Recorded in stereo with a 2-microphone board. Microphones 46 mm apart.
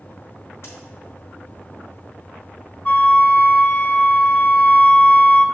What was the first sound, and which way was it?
A crack, 65° left (ahead or behind).